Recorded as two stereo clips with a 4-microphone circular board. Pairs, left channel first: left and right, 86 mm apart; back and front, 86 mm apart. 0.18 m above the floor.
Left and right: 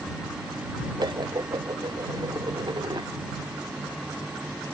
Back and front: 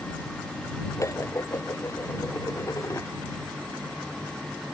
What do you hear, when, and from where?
1.0 s dishes clattering: 125° right